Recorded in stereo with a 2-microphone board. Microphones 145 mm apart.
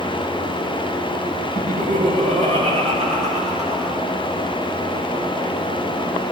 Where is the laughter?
55° right (ahead or behind), 1.9 m; by 3.9 s 50° right (ahead or behind), 4.5 m.